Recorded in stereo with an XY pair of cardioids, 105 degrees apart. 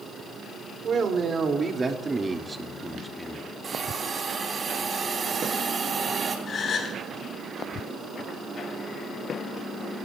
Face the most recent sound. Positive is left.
turn(degrees=50)